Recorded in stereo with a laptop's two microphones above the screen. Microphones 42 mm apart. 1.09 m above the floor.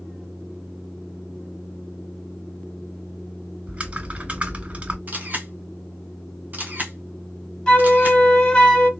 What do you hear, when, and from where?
3.7 s typing on a keyboard: 30° right (ahead or behind), 1.9 m
5.1 s a camera shutter: 40° right (ahead or behind), 0.9 m
7.7 s a flute: 15° left (ahead or behind), 1.1 m